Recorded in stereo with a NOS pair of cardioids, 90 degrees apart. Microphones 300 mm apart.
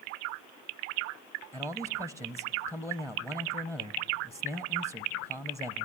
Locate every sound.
1.5 s a man speaking: 10° left, 0.6 m